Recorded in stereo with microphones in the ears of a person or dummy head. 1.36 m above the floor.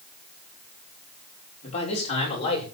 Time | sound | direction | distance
1.6 | a man speaking | 40° left (ahead or behind) | 5 m